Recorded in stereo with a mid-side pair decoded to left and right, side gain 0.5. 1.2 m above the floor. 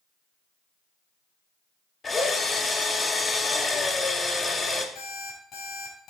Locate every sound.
2.0 s a drill: 30° left, 1.9 m
5.0 s an alarm clock: 60° left, 5.5 m